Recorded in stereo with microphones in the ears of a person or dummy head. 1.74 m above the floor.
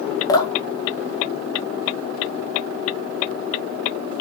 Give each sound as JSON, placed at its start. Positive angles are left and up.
{"t": 0.3, "sound": "dripping", "side_deg": 25, "distance_m": 1.9}